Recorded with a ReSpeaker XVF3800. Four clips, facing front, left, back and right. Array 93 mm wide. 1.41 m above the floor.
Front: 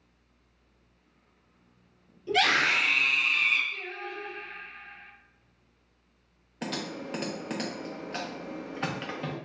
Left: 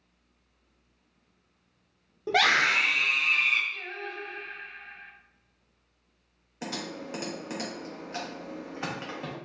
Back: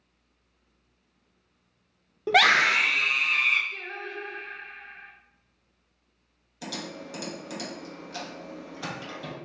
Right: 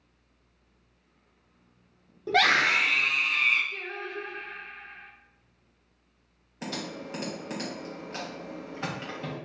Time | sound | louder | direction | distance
2.3 | a scream | right 1 dB, back 5 dB | 175° left | 0.6 m
3.7 | singing | right 1 dB, back 1 dB | 120° right | 0.9 m
6.6 | typing on a keyboard | even, front 3 dB | 5° left | 0.8 m